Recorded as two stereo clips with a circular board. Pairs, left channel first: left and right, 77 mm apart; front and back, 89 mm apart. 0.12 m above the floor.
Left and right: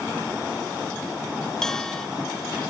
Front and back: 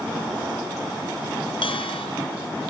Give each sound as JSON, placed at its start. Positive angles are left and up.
{"t": 1.6, "sound": "a bell", "azimuth_deg": 5}